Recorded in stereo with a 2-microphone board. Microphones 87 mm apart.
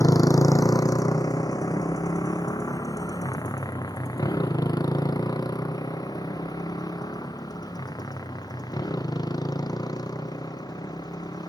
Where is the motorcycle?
40° left (ahead or behind); by 11.5 s 50° left (ahead or behind).